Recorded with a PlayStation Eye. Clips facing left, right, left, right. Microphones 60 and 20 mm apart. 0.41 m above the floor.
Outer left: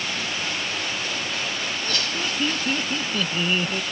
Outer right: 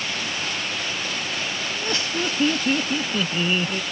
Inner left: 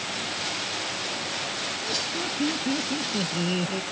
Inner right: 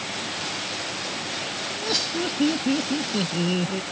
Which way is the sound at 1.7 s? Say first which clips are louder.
Outer right 1 dB, inner right 6 dB; 30° right (ahead or behind).